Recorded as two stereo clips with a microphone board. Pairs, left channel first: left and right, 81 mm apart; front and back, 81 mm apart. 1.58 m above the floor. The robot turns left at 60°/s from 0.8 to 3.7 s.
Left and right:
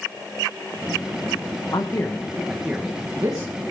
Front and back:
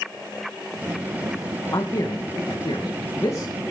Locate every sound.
1.7 s a man speaking: 45° left, 1.9 m; by 3.5 s 65° right, 1.9 m